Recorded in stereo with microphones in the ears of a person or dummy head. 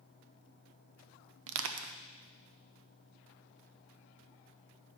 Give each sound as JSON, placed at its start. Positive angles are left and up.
{"t": 1.5, "sound": "crushing", "side_deg": -75, "distance_m": 0.7}